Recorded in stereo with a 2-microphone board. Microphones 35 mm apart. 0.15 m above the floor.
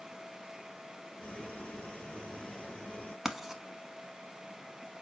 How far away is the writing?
About 0.8 m.